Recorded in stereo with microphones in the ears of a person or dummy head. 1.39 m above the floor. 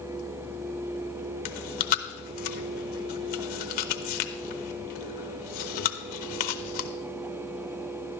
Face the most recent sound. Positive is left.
turn(degrees=45)  # may be behind; listen again after turning